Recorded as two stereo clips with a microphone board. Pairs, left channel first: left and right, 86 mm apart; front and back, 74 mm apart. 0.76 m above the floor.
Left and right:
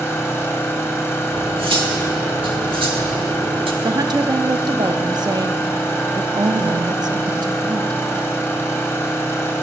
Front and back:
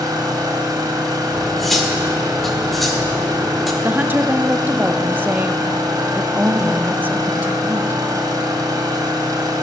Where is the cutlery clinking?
90° right, 1.3 m.